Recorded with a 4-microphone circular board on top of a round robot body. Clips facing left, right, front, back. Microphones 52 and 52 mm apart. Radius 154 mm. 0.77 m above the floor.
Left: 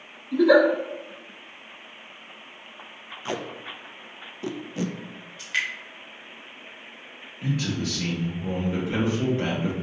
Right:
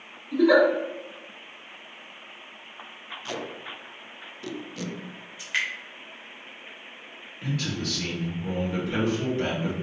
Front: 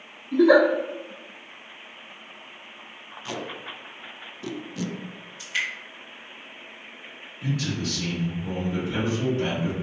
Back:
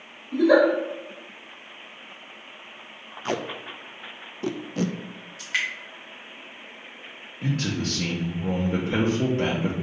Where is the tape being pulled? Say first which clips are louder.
Left 3 dB, back 5 dB; 145° left, 0.5 m.